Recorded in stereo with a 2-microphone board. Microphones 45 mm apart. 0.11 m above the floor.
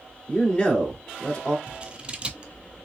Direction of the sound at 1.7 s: 25° right (ahead or behind).